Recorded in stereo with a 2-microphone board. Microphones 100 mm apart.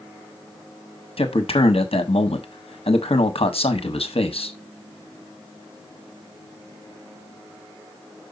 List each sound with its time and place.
1.2 s a man speaking: 70° left (ahead or behind), 1.2 m